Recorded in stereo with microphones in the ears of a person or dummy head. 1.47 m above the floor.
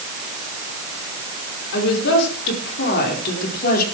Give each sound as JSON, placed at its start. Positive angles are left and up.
{"t": 1.7, "sound": "a woman speaking", "side_deg": 60, "distance_m": 4.5}